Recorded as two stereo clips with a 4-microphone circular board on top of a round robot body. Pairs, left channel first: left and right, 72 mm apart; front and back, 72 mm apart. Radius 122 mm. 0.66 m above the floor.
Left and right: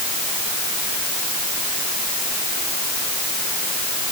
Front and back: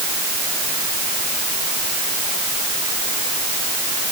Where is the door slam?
No door slam in this recording.